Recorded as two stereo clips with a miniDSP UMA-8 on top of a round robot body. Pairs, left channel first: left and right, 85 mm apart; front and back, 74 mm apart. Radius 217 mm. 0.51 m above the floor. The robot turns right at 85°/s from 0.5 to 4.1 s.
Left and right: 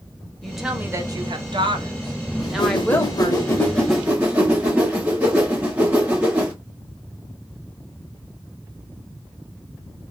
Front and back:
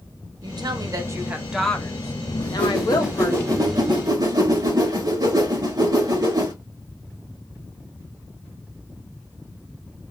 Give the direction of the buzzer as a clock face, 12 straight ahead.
No buzzer in this recording.